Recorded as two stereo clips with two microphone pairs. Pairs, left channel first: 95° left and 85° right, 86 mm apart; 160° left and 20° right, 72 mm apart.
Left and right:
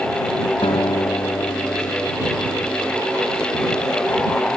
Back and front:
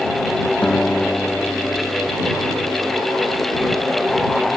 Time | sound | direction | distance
0.6 | a guitar | 95° left | ?